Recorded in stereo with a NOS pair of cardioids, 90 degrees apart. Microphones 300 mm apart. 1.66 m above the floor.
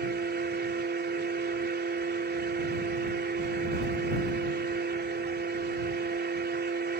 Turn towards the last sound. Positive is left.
turn(degrees=-35)